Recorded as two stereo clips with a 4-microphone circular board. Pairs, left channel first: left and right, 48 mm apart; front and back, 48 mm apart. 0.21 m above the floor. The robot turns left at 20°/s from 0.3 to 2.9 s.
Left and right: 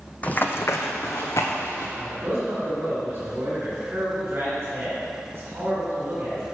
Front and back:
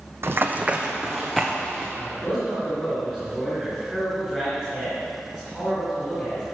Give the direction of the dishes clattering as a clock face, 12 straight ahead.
I don't hear dishes clattering.